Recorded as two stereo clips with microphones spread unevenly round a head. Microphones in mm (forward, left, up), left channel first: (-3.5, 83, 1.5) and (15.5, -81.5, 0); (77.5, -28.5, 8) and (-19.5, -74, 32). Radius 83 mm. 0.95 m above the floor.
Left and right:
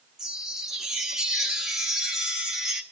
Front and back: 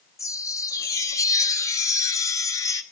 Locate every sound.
0.2 s a chime: straight ahead, 1.1 m